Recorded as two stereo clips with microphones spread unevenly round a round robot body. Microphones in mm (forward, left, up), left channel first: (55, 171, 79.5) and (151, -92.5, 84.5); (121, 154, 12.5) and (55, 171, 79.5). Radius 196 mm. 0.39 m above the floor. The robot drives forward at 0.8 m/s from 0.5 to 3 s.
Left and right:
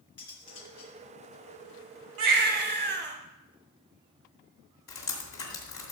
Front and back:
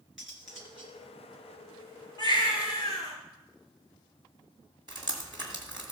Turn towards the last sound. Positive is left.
turn(degrees=130)